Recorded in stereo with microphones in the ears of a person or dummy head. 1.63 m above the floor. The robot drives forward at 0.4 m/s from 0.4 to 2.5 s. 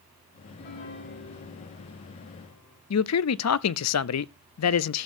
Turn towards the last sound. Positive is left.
turn(degrees=75)  # may be behind; listen again after turning